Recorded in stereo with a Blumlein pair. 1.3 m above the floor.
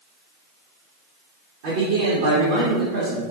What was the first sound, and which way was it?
A man speaking, 50° right.